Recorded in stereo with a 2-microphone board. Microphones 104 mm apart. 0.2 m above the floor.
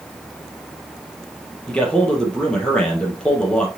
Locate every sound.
1.7 s a man speaking: 10° left (ahead or behind), 4 m